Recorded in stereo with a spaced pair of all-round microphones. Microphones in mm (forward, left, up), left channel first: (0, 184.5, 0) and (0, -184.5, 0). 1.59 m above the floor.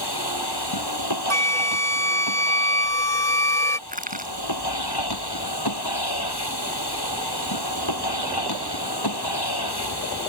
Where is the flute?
5° left (ahead or behind).